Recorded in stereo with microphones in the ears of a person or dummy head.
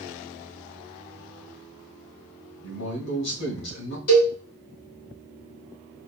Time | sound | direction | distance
2.6 | a man speaking | 85° left | 2.5 m
4.1 | a cowbell | 55° left (ahead or behind) | 3 m